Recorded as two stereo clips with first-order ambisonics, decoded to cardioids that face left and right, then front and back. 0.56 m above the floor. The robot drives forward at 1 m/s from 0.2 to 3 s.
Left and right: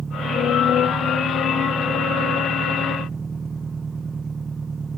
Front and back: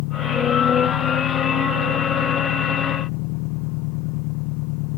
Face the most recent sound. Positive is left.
turn(degrees=-15)